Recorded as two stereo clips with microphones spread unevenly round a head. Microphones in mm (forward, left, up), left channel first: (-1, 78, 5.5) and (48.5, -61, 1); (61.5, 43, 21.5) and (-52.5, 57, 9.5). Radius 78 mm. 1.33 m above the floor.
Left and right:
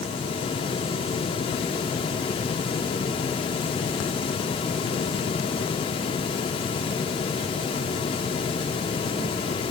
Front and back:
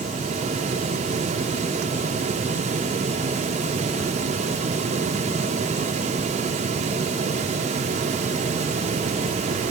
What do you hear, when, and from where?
Only background noise.